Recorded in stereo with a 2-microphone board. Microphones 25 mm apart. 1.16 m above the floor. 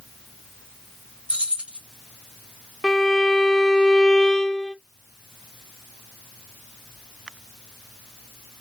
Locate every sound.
1.3 s keys jangling: 65° right (ahead or behind), 1.4 m
2.8 s a violin: 15° left (ahead or behind), 0.7 m